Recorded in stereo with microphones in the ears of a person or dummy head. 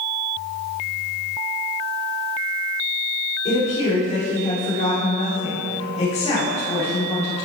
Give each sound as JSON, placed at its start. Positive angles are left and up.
{"t": 3.5, "sound": "a woman speaking", "side_deg": 30, "distance_m": 3.0}